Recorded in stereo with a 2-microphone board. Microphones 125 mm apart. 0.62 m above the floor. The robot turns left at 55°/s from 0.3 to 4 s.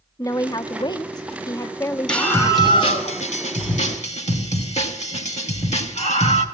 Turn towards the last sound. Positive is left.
turn(degrees=70)